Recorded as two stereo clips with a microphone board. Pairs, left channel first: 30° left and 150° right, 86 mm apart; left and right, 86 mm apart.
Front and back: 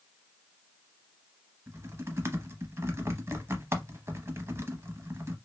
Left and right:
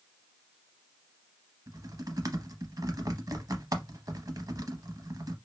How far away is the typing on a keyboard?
About 0.6 m.